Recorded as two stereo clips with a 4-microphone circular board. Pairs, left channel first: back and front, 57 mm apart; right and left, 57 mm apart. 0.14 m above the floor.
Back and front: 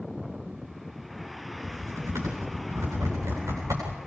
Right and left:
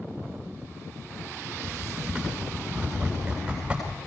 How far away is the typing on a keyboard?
About 9.5 m.